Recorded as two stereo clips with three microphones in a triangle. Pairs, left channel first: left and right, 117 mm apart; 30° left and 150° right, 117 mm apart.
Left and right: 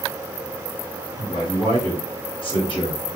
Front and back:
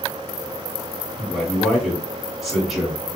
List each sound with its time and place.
1.2 s a man speaking: 125° left, 2.5 m